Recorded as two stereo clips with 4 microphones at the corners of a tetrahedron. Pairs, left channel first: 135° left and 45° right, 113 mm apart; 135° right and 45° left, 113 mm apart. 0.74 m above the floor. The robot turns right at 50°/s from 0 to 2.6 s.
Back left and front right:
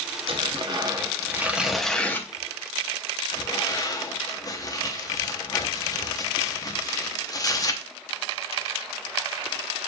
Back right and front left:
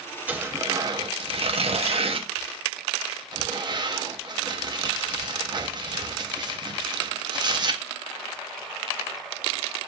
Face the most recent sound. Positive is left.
turn(degrees=85)